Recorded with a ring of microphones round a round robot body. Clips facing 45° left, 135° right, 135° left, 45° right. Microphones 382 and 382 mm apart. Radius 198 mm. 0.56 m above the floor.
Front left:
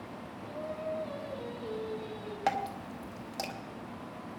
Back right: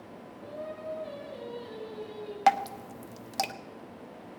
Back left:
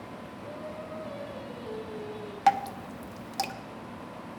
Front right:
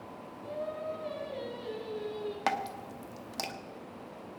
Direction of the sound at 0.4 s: 75° right.